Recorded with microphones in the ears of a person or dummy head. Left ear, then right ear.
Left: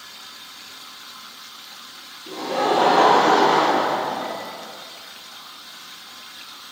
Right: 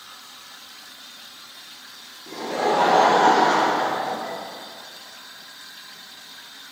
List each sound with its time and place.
2.3 s laughter: 40° right (ahead or behind), 0.8 m; by 4.4 s 75° right (ahead or behind), 1.3 m